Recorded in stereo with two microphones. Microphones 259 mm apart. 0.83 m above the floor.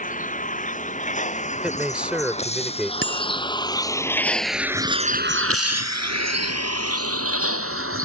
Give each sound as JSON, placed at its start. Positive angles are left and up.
{"t": 0.0, "sound": "a vehicle", "side_deg": 30}
{"t": 1.6, "sound": "a man speaking", "side_deg": -5}
{"t": 3.0, "sound": "a bicycle bell", "side_deg": -55}